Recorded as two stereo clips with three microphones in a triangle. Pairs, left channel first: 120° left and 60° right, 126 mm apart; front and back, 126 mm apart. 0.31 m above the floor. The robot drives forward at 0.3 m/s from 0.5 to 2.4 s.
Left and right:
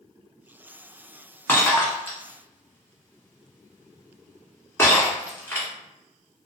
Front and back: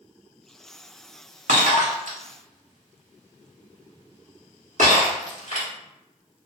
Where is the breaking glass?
165° right, 0.9 m; by 5.7 s 170° right, 1.1 m.